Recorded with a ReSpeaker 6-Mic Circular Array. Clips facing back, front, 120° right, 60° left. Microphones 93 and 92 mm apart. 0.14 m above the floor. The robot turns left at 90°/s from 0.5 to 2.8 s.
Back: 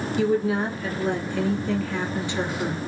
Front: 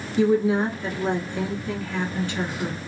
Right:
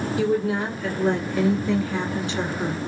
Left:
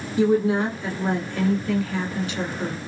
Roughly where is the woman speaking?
Ahead left.